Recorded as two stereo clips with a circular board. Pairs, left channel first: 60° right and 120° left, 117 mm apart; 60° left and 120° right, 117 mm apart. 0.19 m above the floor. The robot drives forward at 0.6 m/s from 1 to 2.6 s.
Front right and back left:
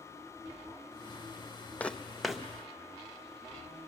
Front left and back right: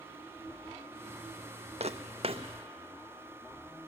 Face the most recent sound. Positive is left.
turn(degrees=-155)